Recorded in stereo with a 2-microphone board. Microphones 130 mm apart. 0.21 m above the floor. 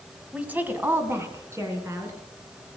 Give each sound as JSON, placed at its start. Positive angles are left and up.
{"t": 0.3, "sound": "a woman speaking", "side_deg": -10, "distance_m": 1.3}